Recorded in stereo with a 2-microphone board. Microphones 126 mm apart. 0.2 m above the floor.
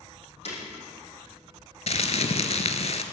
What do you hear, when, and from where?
0.5 s breaking glass: 55° left (ahead or behind), 5 m
1.9 s crumpling: 60° left (ahead or behind), 0.8 m